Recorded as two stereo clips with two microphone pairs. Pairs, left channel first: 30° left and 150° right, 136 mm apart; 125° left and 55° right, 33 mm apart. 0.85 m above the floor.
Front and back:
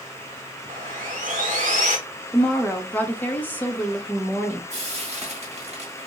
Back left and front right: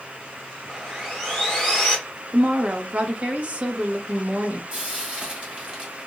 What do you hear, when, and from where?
0.7 s sawing: 135° right, 2.5 m
2.3 s a woman speaking: 40° right, 1.0 m
4.7 s frying: 120° right, 2 m